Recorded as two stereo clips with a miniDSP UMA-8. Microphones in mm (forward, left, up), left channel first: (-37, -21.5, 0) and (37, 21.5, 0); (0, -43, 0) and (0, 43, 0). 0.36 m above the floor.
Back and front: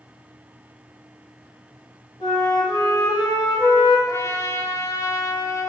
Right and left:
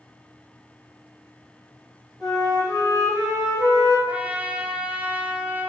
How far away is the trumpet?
About 0.8 m.